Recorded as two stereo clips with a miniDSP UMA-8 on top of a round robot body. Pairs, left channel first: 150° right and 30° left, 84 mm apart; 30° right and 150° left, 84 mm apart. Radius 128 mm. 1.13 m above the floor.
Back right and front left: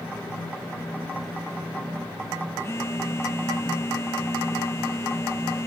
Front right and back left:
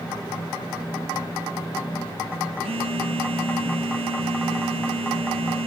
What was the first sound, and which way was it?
A phone buzzing, 150° left.